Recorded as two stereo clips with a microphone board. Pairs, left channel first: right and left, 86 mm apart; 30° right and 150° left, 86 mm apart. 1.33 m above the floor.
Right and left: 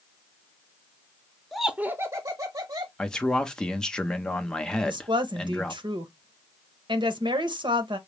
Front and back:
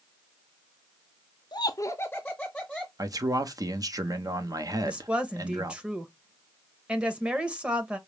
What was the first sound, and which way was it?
Laughter, 5° right.